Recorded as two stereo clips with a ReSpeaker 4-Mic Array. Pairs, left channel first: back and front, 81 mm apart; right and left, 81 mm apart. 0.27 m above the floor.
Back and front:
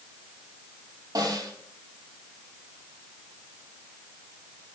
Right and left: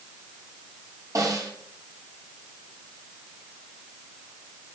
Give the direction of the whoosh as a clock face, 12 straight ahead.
I don't hear a whoosh.